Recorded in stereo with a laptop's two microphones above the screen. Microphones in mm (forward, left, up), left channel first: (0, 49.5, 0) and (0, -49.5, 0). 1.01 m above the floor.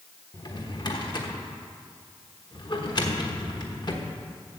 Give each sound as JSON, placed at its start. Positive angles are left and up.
{"t": 0.3, "sound": "a drawer", "side_deg": 45, "distance_m": 1.1}